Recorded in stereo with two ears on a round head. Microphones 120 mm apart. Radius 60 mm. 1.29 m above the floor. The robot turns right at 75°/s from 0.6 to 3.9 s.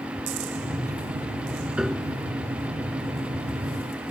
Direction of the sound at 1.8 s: 10° right (ahead or behind).